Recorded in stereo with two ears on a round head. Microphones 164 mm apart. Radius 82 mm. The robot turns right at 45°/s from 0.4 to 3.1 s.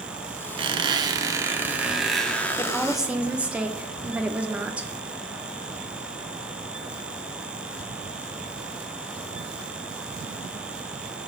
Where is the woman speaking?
15° left (ahead or behind), 0.8 m; by 4.9 s 5° right (ahead or behind), 0.8 m.